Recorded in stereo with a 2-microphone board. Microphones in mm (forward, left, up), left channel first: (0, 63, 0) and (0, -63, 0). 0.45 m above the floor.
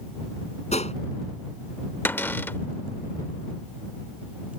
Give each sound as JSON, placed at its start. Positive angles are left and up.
{"t": 0.7, "sound": "a gunshot", "side_deg": 60}
{"t": 2.0, "sound": "a cupboard door", "side_deg": 15}